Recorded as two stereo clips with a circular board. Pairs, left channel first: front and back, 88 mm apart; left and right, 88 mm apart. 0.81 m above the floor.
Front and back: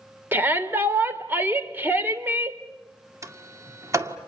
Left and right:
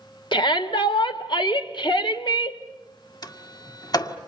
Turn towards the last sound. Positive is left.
turn(degrees=130)